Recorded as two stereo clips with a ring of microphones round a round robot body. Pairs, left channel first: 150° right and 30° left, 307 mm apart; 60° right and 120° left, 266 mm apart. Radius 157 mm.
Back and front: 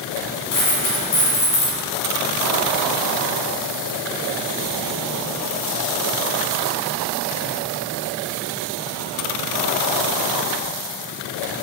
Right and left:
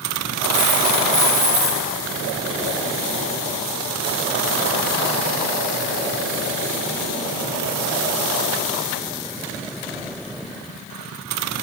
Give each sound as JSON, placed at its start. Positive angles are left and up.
{"t": 0.5, "sound": "a dropped coin", "azimuth_deg": -165, "distance_m": 3.0}